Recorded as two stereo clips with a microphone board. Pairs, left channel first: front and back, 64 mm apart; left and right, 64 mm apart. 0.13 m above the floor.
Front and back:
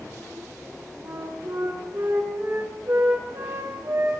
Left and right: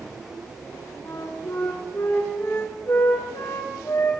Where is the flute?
140° left, 6.5 m.